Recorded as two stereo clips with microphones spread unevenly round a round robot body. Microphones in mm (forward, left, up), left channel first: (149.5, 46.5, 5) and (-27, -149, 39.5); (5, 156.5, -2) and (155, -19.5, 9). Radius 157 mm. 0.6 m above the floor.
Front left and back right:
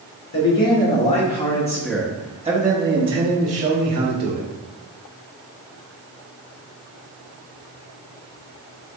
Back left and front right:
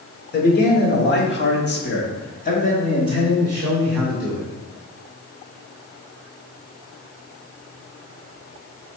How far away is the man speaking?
About 2.0 m.